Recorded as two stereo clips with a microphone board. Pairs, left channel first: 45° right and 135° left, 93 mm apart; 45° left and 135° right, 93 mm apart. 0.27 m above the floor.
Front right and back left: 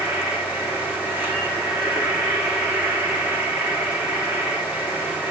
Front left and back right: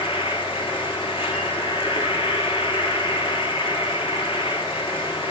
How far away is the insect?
About 3.5 m.